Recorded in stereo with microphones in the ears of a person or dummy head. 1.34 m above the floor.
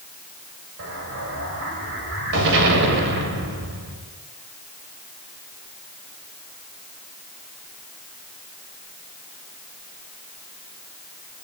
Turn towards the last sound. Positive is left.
turn(degrees=-70)  # may be behind; listen again after turning